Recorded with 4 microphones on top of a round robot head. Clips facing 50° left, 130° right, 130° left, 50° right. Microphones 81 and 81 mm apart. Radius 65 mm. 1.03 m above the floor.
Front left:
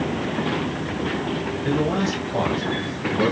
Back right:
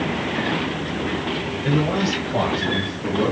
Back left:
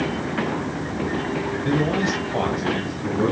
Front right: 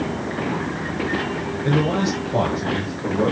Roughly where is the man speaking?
Ahead right.